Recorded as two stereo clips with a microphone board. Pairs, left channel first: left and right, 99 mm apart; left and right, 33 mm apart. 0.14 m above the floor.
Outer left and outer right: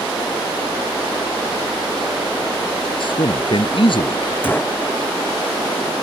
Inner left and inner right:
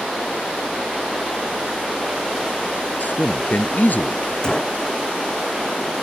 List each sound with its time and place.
3.0 s a man speaking: 60° left (ahead or behind)
4.4 s a gunshot: 20° left (ahead or behind)